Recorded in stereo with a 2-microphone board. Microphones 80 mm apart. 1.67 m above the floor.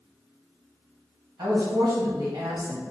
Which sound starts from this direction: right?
A woman speaking, at 1.4 s.